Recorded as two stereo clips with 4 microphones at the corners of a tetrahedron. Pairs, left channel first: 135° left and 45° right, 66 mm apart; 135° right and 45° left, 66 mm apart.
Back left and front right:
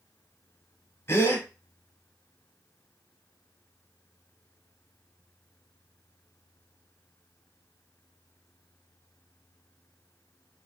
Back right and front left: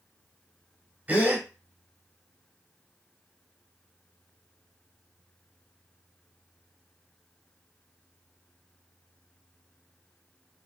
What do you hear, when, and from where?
1.1 s a gasp: 105° left, 1.0 m